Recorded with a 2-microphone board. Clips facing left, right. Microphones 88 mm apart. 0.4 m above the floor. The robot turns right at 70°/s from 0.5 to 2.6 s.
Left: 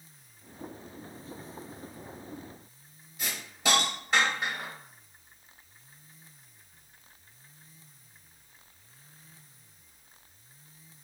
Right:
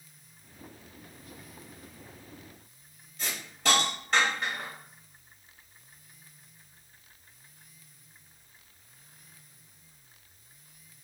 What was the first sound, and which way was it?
A hiss, 5° left (ahead or behind).